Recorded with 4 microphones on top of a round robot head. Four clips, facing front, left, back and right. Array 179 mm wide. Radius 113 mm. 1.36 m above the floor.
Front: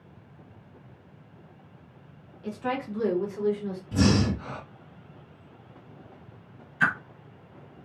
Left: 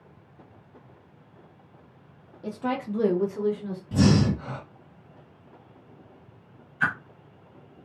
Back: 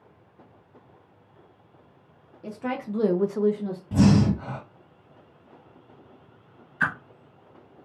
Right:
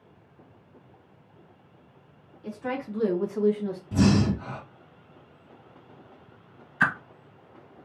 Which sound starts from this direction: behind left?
A woman speaking, at 2.4 s.